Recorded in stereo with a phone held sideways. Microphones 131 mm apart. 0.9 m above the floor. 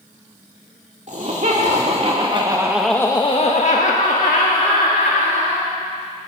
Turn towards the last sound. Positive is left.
turn(degrees=80)